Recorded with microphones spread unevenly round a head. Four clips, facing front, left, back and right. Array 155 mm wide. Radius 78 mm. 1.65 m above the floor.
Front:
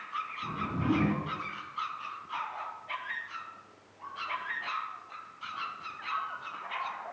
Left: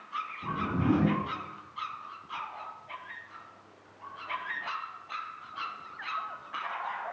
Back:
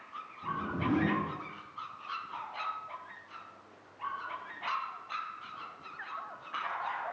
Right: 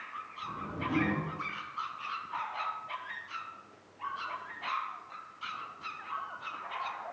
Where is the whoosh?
70° left, 7.5 m.